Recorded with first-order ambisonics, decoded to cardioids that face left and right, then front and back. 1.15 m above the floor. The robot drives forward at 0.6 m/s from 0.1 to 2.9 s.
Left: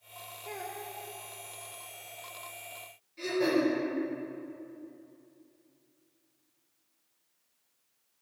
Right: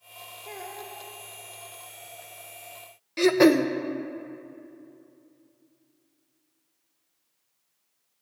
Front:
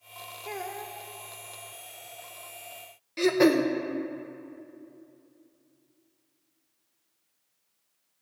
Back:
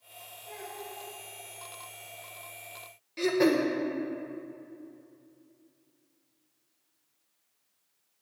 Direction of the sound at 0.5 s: 5° right.